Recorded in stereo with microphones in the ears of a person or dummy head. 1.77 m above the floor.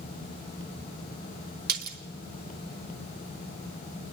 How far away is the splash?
About 2.5 m.